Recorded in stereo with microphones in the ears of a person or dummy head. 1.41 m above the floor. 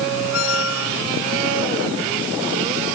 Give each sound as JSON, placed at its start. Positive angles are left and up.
{"t": 0.3, "sound": "a squeak", "side_deg": 80}